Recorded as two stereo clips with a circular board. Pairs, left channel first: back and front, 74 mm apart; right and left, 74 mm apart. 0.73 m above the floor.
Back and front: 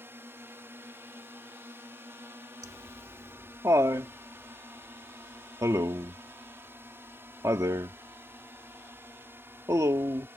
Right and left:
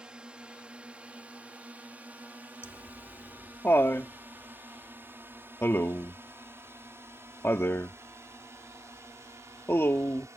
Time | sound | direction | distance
0.0 | a drone | 20° left | ?
2.6 | laughter | 40° right | ?